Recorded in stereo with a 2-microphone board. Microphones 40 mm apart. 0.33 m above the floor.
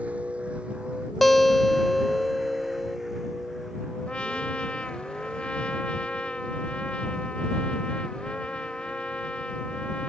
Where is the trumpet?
30° left (ahead or behind).